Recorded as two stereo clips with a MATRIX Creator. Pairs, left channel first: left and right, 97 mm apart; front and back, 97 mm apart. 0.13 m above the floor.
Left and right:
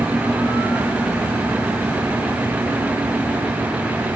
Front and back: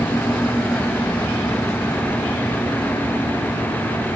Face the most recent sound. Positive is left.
No sound to turn to.